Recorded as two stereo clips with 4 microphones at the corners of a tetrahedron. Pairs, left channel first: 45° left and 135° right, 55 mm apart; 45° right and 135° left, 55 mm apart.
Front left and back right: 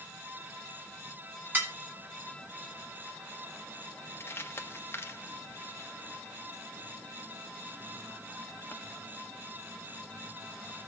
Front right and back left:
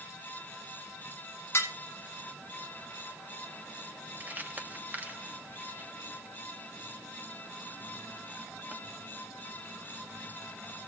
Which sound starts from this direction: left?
Crumpling, at 4.2 s.